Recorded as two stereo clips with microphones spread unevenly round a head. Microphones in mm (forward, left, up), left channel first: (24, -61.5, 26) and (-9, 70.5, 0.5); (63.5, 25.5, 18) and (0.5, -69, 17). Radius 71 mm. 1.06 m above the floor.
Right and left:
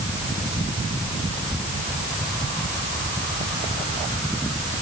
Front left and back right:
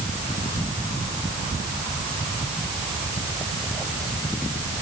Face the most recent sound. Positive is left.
No sound to turn to.